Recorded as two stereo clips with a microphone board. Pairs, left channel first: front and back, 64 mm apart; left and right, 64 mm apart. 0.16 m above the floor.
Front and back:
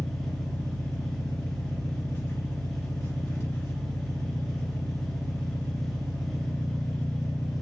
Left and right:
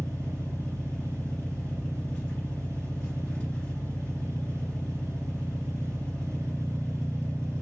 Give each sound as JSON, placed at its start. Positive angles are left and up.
{"t": 0.0, "sound": "an engine running", "azimuth_deg": 35, "distance_m": 1.8}